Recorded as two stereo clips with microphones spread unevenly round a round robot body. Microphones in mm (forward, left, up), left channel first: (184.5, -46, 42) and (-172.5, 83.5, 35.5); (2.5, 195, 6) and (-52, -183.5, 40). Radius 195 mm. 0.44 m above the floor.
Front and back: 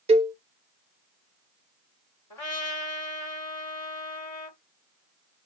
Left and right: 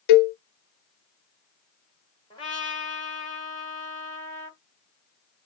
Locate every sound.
0.1 s a cowbell: 85° left, 0.6 m
2.3 s a trumpet: 15° left, 1.8 m